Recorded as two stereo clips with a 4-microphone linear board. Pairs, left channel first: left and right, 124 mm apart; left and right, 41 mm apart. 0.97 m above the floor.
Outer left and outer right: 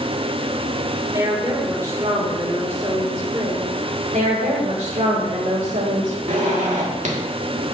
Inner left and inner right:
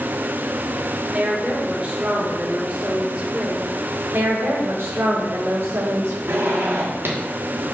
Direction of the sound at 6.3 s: 80° right.